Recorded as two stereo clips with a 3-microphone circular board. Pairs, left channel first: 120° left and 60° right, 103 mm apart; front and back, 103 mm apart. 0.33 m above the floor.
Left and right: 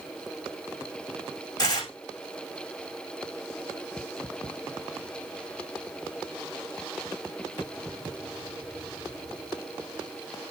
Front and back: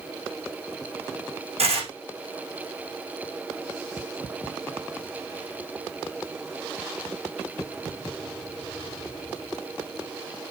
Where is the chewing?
I don't hear chewing.